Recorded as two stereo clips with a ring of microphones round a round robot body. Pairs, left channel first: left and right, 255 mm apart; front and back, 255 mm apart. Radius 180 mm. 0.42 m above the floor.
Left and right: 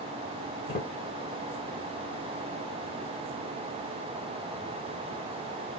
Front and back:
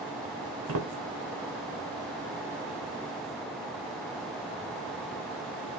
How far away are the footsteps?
About 2.5 m.